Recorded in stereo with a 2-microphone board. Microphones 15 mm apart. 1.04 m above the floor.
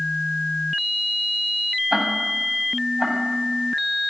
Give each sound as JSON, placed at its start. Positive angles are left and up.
{"t": 1.9, "sound": "ticking", "side_deg": -55, "distance_m": 5.5}